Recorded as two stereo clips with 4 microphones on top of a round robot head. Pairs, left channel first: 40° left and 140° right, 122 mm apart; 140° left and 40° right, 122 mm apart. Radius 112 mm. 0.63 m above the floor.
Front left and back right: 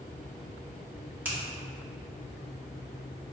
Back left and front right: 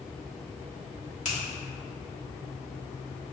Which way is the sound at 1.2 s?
145° left.